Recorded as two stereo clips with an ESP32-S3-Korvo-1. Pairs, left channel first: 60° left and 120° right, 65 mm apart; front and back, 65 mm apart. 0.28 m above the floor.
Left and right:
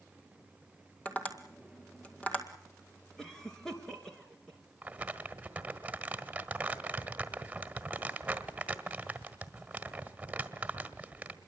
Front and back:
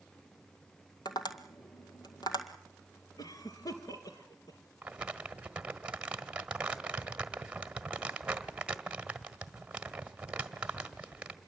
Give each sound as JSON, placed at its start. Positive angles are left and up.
{"t": 1.1, "sound": "tapping", "azimuth_deg": -10, "distance_m": 1.8}
{"t": 3.2, "sound": "a cough", "azimuth_deg": -25, "distance_m": 3.5}
{"t": 4.8, "sound": "crumpling", "azimuth_deg": -140, "distance_m": 1.4}